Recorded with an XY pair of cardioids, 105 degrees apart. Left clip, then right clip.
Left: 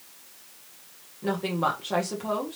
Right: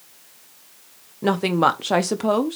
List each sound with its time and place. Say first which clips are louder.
1.2 s a woman speaking: right 8 dB; 70° right, 0.8 m